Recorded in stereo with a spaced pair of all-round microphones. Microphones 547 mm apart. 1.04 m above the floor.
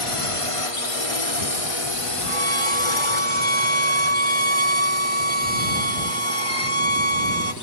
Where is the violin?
75° right (ahead or behind).